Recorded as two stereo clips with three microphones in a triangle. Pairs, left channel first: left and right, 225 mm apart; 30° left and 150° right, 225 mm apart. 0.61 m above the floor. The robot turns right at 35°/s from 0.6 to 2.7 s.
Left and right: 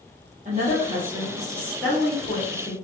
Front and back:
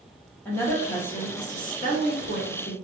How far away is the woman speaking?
About 0.9 m.